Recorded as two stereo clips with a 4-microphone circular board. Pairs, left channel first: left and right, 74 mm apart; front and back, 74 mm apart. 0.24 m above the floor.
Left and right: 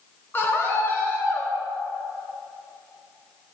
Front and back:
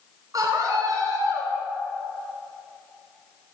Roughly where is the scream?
Behind left.